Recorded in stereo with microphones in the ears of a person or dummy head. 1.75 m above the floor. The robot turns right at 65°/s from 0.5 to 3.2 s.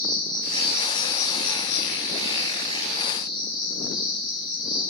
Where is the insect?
20° right, 3.5 m; by 4.9 s 155° left, 3.5 m.